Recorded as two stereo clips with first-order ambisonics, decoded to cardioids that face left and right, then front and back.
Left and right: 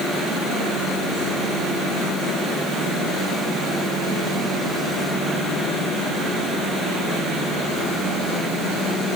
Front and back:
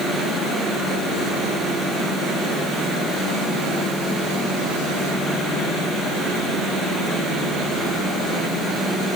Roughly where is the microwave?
No microwave in this recording.